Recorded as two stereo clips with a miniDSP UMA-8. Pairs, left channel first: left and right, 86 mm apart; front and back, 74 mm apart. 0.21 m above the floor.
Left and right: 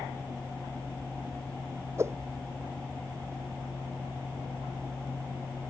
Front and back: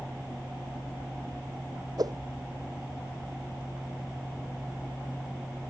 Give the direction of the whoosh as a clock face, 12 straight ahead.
5 o'clock.